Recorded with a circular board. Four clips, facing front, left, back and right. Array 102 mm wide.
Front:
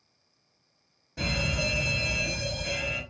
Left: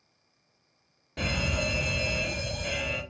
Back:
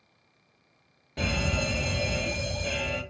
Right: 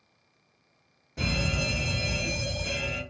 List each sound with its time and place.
1.2 s a fire alarm: 140° left, 1.8 m